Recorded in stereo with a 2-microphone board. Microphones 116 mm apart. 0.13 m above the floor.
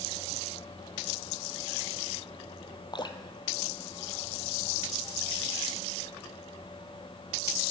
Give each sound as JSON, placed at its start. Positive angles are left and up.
{"t": 2.9, "sound": "dripping", "side_deg": 40, "distance_m": 0.8}